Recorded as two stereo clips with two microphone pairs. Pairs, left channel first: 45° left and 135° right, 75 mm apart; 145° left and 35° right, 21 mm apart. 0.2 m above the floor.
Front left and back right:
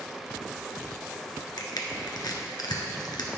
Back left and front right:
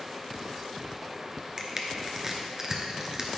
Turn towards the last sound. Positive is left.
turn(degrees=30)